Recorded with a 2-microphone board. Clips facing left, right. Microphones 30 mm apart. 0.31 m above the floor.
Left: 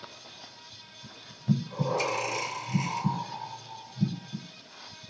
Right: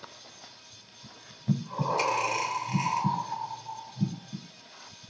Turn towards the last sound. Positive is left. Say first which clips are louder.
# even
turn(degrees=-65)  # may be behind; listen again after turning